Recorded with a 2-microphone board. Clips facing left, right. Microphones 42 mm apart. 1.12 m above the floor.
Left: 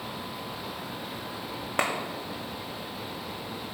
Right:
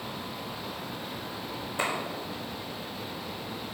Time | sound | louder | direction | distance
1.8 | a clap | left 3 dB | 70° left (ahead or behind) | 2 m